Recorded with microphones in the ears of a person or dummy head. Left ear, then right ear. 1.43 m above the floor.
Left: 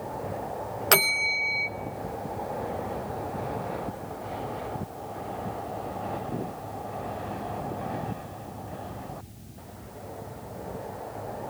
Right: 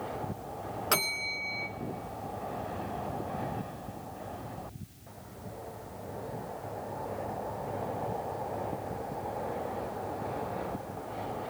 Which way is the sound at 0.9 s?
15° left (ahead or behind).